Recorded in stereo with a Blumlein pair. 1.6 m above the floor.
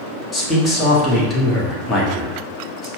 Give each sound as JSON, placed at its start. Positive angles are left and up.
{"t": 0.3, "sound": "a man speaking", "azimuth_deg": 20, "distance_m": 1.4}